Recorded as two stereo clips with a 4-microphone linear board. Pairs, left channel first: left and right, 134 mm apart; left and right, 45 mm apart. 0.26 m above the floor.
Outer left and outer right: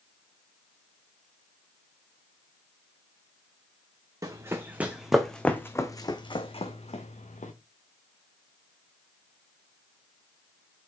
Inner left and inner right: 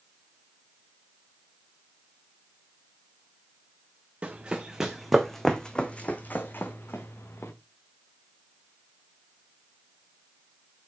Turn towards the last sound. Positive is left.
turn(degrees=65)  # may be behind; listen again after turning